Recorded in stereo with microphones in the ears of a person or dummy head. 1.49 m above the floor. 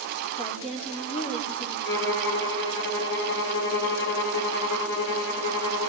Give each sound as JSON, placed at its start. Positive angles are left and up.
{"t": 0.4, "sound": "a woman speaking", "side_deg": 35, "distance_m": 4.5}
{"t": 1.9, "sound": "a violin", "side_deg": 65, "distance_m": 6.0}